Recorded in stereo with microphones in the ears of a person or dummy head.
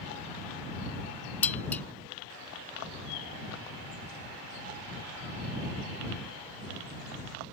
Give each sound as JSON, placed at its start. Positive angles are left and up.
{"t": 1.4, "sound": "dishes clattering", "side_deg": 10}